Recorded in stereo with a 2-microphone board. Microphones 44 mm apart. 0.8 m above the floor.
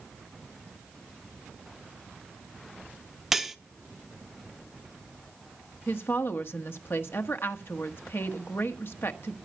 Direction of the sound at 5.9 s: 60° left (ahead or behind).